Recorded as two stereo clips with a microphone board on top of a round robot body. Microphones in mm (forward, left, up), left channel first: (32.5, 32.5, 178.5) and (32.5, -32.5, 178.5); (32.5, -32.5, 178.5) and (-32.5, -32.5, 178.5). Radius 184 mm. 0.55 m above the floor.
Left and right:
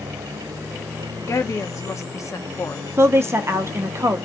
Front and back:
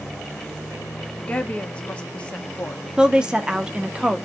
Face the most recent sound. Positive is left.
turn(degrees=-110)